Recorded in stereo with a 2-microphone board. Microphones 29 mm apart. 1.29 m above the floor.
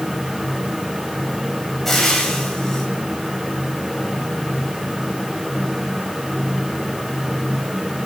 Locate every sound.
1.9 s frying: 10° left (ahead or behind), 9 m